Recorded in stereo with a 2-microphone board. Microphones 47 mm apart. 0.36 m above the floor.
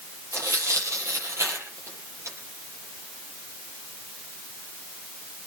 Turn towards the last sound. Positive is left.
turn(degrees=-85)